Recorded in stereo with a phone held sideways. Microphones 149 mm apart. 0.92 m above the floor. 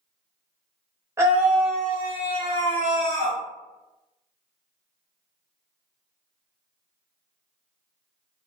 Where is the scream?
20° right (ahead or behind), 0.8 m; by 3.4 s 50° left (ahead or behind), 1.1 m.